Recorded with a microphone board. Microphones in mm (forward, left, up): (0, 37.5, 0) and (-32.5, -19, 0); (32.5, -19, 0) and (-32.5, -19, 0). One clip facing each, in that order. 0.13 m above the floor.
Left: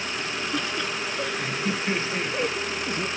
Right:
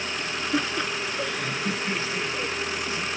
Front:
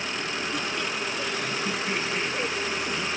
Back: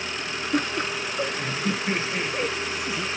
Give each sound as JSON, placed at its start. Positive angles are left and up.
{"t": 0.5, "sound": "laughter", "azimuth_deg": -175}